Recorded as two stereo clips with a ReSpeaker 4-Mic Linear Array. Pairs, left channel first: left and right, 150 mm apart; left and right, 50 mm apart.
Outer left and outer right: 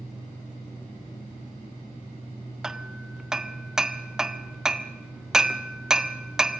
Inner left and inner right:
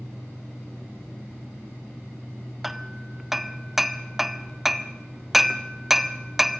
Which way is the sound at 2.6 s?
5° right (ahead or behind).